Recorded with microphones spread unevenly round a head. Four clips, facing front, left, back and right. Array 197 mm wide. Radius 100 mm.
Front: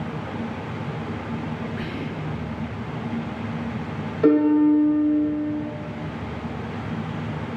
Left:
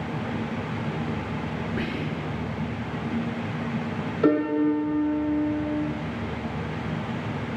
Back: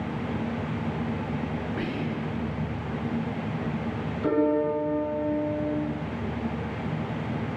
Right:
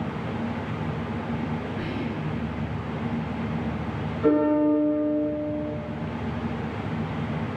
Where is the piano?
40° left, 0.6 m.